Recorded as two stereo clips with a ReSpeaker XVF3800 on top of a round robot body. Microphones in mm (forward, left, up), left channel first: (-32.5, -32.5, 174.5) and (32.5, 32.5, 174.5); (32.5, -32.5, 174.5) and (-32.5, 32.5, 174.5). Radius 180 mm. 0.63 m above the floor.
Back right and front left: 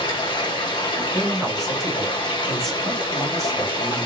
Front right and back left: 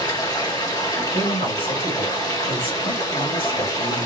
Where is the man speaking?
45° right, 3 m.